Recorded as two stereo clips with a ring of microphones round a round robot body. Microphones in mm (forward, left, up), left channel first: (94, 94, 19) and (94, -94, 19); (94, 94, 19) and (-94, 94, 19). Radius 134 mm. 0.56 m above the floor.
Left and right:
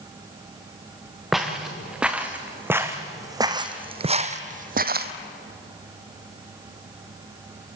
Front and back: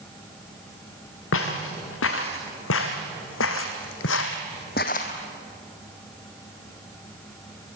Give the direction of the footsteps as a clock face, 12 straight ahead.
12 o'clock.